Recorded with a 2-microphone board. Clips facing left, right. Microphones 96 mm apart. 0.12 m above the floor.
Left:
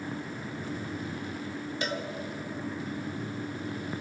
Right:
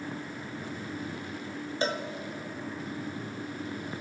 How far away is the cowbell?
About 1.6 m.